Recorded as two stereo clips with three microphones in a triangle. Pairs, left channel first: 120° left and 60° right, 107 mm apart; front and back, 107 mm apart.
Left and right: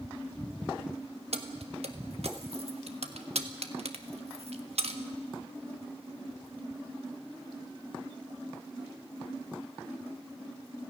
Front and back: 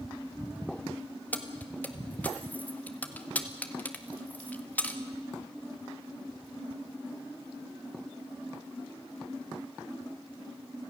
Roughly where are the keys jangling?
Right.